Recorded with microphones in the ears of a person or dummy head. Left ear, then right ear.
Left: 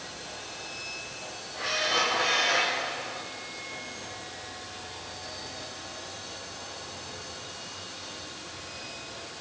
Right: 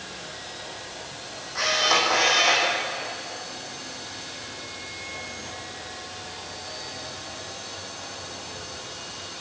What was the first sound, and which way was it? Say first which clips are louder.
A camera shutter: right 6 dB; 50° right (ahead or behind).